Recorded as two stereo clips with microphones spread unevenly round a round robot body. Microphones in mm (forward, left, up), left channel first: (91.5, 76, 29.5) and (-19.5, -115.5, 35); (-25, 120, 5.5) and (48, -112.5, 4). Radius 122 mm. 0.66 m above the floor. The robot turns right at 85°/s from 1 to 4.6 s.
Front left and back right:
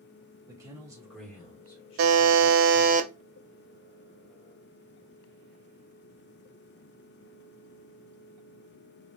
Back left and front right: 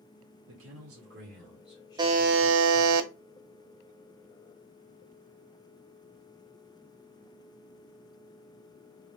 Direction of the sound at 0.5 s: 45° right.